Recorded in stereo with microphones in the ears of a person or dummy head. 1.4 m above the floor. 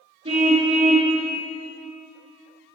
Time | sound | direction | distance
0.2 | a car horn | 30° right (ahead or behind) | 8 m